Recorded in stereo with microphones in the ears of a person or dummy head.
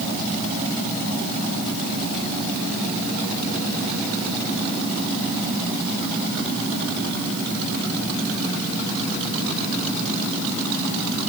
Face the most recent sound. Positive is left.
No sound to turn to.